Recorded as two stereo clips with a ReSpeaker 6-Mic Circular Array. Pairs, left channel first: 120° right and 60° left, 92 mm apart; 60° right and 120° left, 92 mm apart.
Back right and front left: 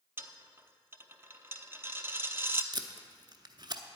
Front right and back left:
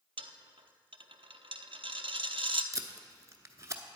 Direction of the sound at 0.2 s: 125° left.